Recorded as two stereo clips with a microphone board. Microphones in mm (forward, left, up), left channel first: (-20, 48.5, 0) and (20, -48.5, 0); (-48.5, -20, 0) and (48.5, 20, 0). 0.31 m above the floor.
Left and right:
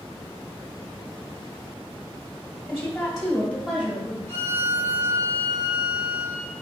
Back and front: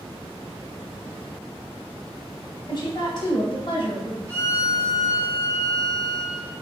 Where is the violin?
60° left, 1.1 m.